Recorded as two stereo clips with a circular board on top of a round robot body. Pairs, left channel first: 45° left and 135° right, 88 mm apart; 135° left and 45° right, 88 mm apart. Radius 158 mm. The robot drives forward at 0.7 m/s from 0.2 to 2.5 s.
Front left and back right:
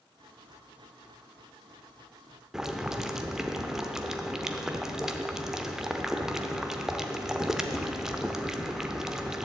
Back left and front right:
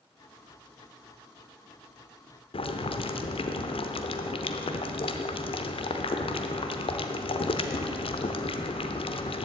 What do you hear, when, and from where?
2.5 s boiling: 140° left, 0.8 m